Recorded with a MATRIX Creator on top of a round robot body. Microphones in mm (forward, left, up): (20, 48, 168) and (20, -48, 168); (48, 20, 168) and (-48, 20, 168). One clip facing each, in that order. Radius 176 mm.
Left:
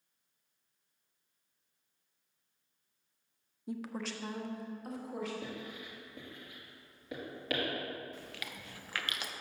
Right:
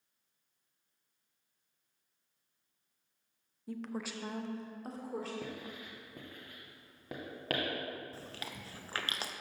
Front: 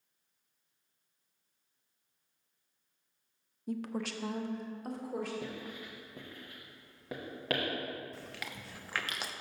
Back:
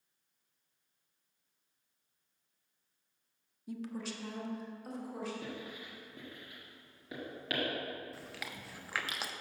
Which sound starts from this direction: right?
Chewing, at 8.1 s.